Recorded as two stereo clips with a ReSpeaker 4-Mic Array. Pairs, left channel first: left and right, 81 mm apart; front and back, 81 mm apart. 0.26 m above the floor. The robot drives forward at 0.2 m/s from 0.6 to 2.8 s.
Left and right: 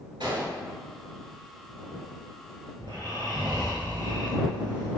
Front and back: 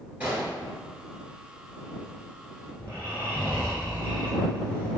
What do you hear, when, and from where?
0.2 s a gunshot: 105° right, 1.6 m; by 0.7 s 110° right, 1.7 m
2.8 s snoring: 65° right, 1.9 m